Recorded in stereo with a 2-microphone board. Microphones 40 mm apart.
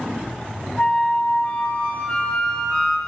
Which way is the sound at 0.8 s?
30° left (ahead or behind).